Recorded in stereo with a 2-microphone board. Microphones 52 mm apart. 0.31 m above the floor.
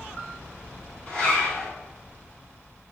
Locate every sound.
1.1 s a zipper: 30° left (ahead or behind), 1.7 m